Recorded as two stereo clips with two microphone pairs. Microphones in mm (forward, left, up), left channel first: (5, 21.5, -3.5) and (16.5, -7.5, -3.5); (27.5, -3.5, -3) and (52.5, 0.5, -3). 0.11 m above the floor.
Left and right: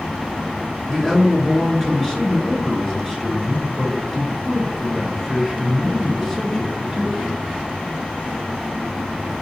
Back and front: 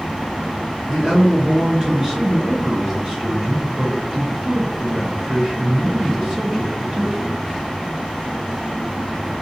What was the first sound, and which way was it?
A man speaking, 35° left.